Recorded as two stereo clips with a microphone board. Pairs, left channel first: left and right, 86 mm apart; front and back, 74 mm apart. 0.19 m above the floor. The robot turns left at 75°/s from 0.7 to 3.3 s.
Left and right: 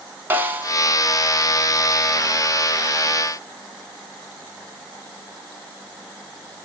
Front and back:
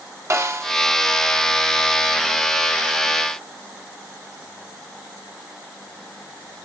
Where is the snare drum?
145° right, 0.7 m; by 0.7 s 150° right, 0.7 m.